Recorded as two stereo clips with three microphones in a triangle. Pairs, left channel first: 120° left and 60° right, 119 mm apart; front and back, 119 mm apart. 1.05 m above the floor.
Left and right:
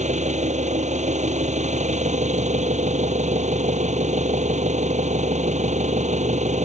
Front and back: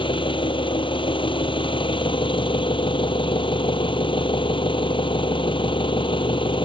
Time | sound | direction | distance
0.0 | an engine running | 45° right | ?